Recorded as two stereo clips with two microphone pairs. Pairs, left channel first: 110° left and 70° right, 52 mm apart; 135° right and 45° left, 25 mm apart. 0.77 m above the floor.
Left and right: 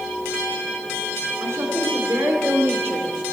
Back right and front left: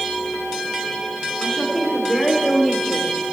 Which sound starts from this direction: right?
A woman speaking, at 1.4 s.